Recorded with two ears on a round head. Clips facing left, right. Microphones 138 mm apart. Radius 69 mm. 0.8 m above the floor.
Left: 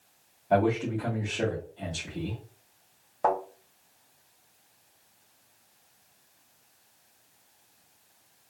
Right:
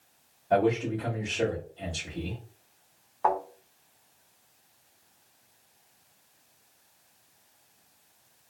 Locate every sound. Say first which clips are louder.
0.5 s a man speaking: even; 15° left (ahead or behind), 1.4 m
3.2 s a thud: even; 40° left (ahead or behind), 1.5 m